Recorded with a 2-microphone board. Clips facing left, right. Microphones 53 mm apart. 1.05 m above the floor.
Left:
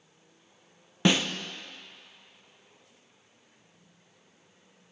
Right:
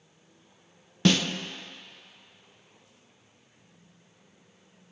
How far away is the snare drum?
About 0.5 m.